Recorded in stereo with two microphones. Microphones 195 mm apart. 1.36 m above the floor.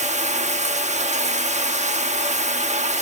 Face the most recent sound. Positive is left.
turn(degrees=-35)  # may be behind; listen again after turning